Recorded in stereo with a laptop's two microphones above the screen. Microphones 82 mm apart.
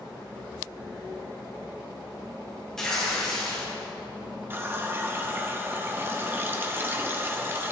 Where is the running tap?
25° right (ahead or behind), 0.6 m.